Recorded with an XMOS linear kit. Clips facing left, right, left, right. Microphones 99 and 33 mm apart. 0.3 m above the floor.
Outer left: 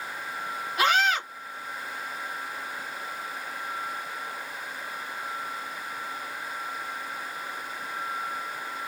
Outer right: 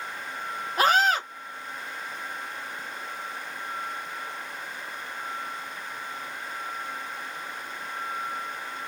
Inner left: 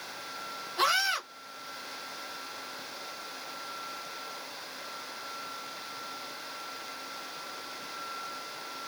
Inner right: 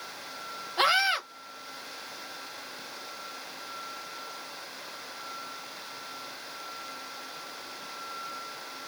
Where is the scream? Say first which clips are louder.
Outer right 2 dB, inner right 3 dB; 40° right (ahead or behind), 1.5 m.